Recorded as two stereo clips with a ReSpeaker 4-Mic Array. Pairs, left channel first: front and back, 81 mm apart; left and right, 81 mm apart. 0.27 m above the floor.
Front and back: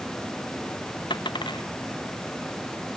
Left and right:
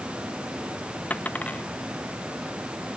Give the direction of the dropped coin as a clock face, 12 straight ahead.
11 o'clock.